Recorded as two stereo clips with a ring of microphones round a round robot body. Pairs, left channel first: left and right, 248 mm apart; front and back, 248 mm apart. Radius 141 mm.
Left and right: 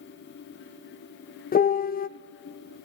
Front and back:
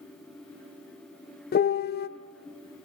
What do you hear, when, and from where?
1.5 s a piano: 40° left, 0.6 m